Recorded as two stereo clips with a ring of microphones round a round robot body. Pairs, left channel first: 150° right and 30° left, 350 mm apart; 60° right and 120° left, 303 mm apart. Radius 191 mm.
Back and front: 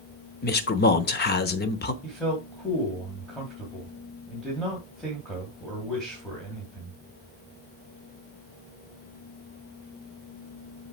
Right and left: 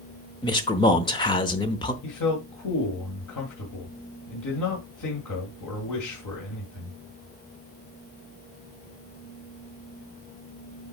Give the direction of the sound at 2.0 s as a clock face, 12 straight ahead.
2 o'clock.